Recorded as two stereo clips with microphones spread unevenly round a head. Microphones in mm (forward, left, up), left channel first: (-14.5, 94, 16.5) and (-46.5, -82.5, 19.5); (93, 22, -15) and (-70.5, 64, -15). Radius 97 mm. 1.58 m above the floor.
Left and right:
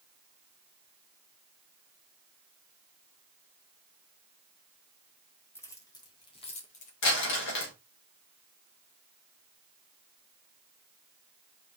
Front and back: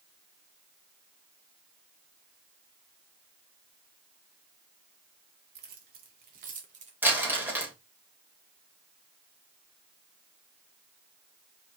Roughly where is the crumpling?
Left.